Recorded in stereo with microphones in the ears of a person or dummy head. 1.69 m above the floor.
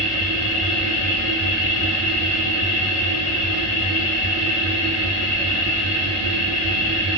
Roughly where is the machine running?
Centre.